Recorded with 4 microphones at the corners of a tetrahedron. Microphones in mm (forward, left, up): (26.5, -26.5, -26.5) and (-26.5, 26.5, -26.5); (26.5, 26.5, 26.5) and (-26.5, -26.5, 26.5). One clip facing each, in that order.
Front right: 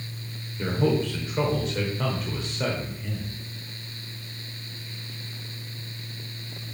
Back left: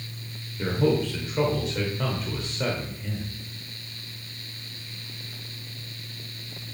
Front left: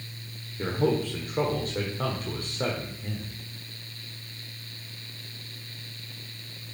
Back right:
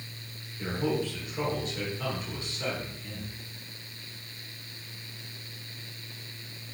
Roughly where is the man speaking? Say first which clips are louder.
Back left 1 dB, front left 4 dB; ahead left.